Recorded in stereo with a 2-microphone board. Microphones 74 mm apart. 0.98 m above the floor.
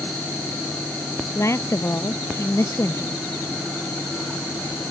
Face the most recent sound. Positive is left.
turn(degrees=40)  # may be behind; listen again after turning